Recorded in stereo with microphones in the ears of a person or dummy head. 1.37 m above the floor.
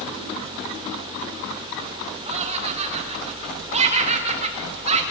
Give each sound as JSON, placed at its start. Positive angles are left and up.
{"t": 2.3, "sound": "laughter", "side_deg": -35, "distance_m": 4.0}